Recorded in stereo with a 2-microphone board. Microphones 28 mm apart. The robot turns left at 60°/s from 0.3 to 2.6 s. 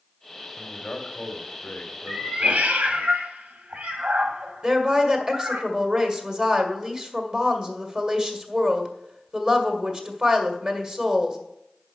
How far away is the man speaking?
About 2 m.